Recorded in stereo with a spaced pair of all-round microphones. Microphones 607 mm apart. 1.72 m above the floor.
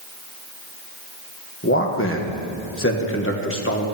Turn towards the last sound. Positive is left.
turn(degrees=20)  # may be behind; listen again after turning